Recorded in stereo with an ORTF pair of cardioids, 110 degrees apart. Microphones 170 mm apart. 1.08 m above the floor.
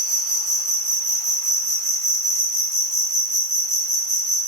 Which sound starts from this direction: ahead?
An insect, at 0.0 s.